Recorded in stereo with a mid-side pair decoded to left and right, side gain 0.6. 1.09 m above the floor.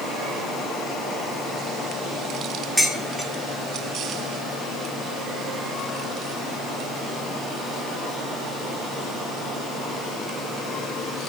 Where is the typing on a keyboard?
No typing on a keyboard in this recording.